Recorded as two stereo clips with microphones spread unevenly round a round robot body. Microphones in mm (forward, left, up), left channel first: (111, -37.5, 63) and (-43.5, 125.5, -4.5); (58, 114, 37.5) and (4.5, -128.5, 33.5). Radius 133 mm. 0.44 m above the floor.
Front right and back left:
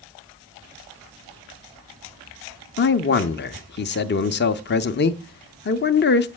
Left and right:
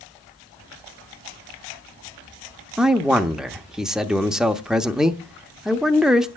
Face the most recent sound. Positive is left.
turn(degrees=-20)